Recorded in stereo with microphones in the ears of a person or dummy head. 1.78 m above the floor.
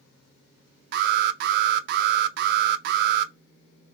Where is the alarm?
60° right (ahead or behind), 0.5 m.